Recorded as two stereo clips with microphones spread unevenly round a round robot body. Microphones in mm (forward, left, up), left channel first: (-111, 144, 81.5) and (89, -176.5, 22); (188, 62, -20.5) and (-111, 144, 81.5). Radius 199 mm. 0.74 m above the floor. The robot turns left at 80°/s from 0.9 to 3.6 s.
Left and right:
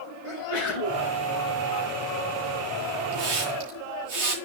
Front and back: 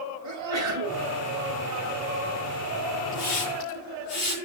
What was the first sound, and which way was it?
A sneeze, 135° left.